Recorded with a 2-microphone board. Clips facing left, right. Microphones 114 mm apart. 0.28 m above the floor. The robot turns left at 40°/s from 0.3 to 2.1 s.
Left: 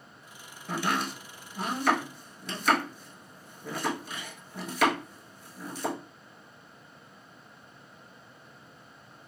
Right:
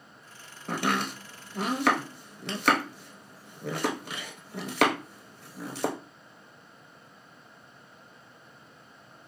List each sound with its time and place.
0.7 s chopping: 55° right (ahead or behind), 0.6 m; by 6.0 s 65° right (ahead or behind), 0.6 m